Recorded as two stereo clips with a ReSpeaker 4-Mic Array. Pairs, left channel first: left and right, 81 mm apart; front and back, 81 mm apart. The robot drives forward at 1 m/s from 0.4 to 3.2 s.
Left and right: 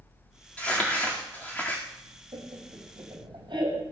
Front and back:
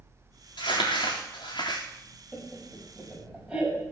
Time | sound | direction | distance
0.6 | crumpling | 15° left | 4.5 m
2.3 | laughter | 85° right | 4.5 m